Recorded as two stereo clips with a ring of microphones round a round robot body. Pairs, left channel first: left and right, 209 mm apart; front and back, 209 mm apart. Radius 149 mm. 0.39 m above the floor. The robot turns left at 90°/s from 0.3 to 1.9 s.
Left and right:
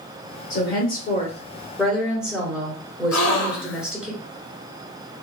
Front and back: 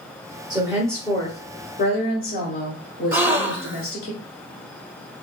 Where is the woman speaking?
120° left, 1.3 m; by 4.1 s 5° right, 1.3 m.